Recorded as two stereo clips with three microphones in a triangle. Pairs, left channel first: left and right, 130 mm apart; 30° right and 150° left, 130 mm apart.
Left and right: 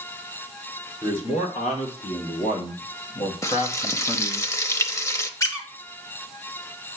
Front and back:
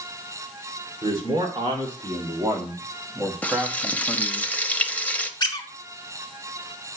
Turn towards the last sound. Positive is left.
turn(degrees=25)